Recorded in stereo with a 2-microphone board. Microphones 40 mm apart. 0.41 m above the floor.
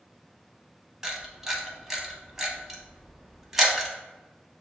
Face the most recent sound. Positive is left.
turn(degrees=-10)  # may be behind; listen again after turning